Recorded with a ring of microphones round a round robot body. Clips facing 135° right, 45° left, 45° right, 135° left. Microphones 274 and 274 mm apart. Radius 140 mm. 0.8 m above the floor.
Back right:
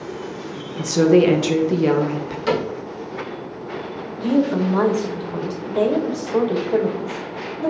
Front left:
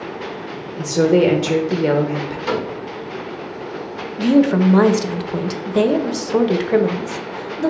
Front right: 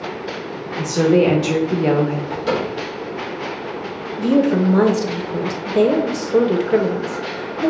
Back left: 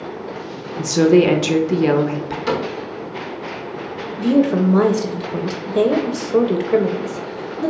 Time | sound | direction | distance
0.8 | a woman speaking | 155° left | 0.6 m
2.5 | a cupboard door | 150° right | 2.5 m
4.2 | a woman speaking | 50° left | 0.5 m